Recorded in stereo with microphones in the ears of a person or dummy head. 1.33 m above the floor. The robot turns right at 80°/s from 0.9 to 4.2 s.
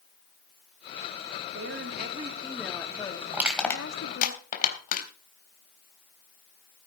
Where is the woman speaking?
95° right, 3.5 m; by 4.3 s 115° left, 3.5 m.